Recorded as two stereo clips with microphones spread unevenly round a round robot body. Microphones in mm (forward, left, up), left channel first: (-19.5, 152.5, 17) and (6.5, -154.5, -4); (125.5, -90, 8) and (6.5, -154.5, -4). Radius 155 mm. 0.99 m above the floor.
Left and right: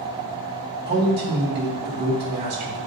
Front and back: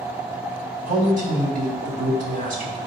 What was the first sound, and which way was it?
A man speaking, 140° right.